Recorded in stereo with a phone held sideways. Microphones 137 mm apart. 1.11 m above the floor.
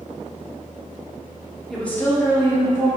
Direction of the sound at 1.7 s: 5° left (ahead or behind).